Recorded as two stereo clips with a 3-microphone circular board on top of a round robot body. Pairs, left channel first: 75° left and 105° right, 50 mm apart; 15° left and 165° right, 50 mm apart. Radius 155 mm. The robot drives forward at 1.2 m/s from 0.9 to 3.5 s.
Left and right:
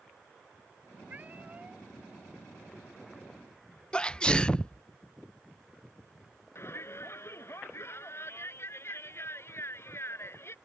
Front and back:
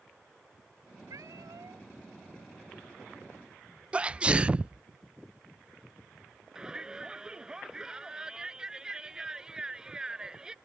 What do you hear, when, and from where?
1.1 s a cat meowing: 165° right
3.9 s a sneeze: 140° left
6.5 s a shout: 115° left